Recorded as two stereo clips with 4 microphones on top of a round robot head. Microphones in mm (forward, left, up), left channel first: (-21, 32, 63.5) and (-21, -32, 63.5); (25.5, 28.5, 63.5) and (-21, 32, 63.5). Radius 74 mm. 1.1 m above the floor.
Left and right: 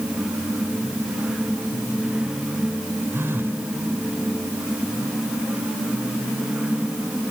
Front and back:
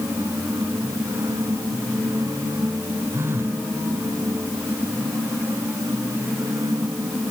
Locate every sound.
3.1 s a phone buzzing: 145° right